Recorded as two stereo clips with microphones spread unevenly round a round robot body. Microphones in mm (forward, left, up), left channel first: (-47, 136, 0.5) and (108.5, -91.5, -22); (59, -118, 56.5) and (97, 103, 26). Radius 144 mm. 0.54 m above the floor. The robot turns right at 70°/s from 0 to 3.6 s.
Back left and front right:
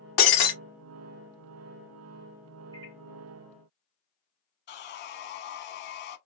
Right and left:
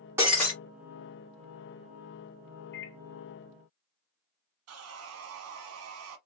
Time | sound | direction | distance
0.2 | breaking glass | 165° left | 0.8 m
2.7 | a microwave | 125° right | 0.6 m
4.7 | sawing | 80° left | 0.6 m